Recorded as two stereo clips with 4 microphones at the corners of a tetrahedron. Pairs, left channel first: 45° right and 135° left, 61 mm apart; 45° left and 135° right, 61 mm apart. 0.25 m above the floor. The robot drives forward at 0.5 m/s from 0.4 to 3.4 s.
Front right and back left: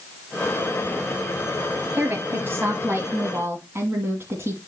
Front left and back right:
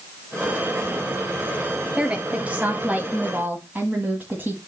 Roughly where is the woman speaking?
Behind.